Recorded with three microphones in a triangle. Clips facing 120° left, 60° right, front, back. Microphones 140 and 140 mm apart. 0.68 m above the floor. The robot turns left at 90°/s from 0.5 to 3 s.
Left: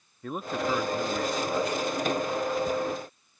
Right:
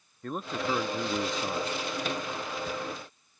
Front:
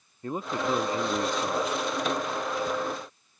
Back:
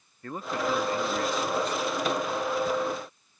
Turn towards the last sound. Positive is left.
turn(degrees=170)